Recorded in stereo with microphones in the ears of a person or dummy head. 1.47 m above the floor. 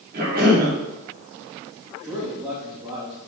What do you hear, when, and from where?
0.1 s a cough: 50° right (ahead or behind), 4 m
2.0 s a man speaking: 25° right (ahead or behind), 3 m